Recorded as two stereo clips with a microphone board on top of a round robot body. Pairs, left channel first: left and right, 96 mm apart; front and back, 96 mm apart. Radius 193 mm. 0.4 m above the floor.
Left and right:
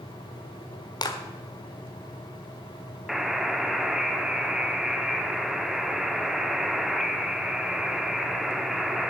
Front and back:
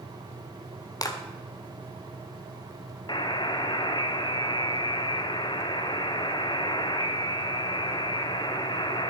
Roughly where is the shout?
No shout in this recording.